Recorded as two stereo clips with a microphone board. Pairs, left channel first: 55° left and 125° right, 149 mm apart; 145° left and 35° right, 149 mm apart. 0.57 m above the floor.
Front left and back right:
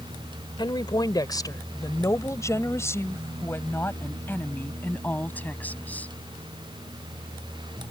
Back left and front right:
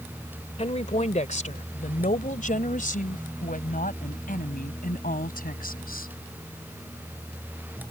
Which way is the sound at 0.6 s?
110° left.